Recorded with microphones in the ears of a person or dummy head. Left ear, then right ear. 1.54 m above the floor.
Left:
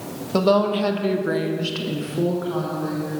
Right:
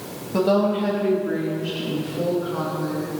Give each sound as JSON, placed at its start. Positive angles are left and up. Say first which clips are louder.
{"t": 0.3, "sound": "a woman speaking", "louder": "left 1 dB", "side_deg": 30, "distance_m": 1.4}